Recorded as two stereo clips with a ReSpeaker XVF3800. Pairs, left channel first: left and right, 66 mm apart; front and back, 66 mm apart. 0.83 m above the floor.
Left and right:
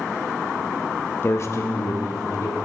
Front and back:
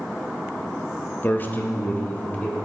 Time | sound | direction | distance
1.2 | a man speaking | 45° left | 0.6 m